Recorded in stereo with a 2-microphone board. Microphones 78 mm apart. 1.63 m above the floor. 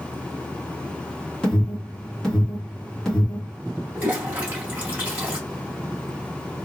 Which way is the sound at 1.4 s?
5° left (ahead or behind).